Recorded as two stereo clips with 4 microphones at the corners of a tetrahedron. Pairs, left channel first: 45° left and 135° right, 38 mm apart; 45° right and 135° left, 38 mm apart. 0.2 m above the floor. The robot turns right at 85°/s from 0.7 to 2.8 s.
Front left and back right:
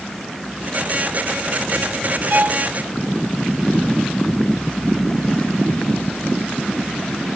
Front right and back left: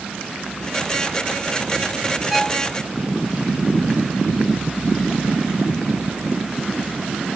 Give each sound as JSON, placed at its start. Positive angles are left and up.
{"t": 2.3, "sound": "a violin", "azimuth_deg": -140}